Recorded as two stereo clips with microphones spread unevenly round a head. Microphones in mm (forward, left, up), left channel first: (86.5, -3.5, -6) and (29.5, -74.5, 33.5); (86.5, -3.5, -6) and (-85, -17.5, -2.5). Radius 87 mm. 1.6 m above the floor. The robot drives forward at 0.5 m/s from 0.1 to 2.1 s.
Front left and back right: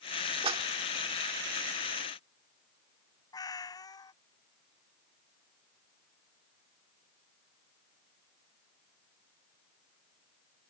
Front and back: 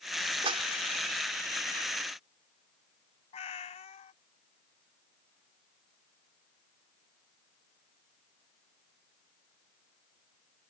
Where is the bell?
No bell in this recording.